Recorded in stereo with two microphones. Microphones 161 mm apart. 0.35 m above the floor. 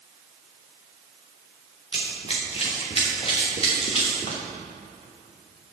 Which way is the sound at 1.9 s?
40° left (ahead or behind).